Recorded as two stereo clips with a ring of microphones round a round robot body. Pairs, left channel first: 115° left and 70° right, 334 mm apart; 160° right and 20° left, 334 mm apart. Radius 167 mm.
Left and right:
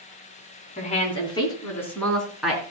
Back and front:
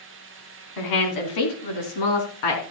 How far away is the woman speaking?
About 2.5 m.